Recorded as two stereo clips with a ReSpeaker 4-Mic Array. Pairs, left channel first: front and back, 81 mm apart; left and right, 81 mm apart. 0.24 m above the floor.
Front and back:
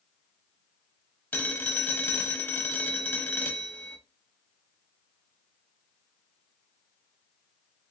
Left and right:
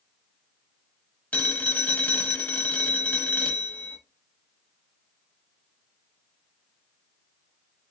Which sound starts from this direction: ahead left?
A phone ringing, at 1.3 s.